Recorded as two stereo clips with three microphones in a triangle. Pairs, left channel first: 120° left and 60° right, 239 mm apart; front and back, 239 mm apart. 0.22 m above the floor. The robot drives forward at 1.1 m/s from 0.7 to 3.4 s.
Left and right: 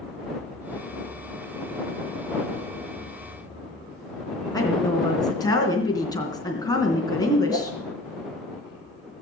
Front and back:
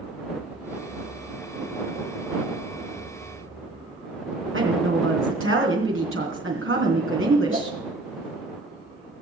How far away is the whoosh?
About 5 m.